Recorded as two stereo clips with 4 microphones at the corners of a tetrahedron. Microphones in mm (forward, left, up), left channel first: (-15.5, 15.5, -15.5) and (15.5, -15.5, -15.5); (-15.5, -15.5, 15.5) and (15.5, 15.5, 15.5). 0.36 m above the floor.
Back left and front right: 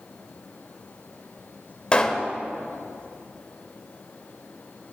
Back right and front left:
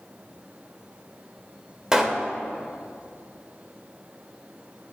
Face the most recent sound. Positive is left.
turn(degrees=105)